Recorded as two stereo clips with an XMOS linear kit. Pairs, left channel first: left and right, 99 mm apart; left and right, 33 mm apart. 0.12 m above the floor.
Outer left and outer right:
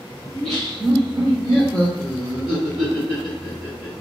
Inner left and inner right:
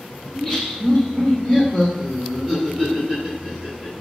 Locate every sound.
0.3 s laughter: 5° left (ahead or behind), 1.5 m; by 3.9 s 10° right (ahead or behind), 2 m